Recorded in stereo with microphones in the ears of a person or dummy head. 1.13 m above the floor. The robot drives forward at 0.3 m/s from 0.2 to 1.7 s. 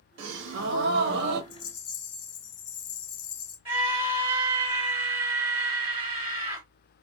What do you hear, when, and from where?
0.2 s a gasp: 75° right (ahead or behind), 1.0 m; by 1.4 s 60° right (ahead or behind), 1.2 m
1.5 s a rattle: 50° left (ahead or behind), 1.2 m
3.6 s a scream: 10° right (ahead or behind), 3 m